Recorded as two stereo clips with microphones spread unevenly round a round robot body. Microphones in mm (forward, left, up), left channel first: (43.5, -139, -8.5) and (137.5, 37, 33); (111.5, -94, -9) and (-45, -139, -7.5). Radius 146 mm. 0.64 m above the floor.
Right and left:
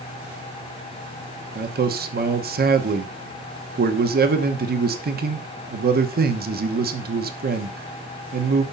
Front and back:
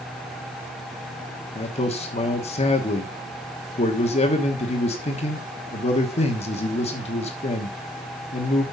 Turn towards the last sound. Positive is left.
turn(degrees=35)